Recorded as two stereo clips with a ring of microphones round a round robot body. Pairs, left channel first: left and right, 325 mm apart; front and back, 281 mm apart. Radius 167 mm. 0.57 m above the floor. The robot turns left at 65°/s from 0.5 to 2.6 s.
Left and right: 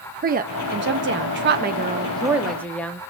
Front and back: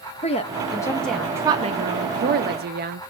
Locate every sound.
0.2 s a woman speaking: 50° right, 0.7 m; by 3.0 s 175° left, 0.7 m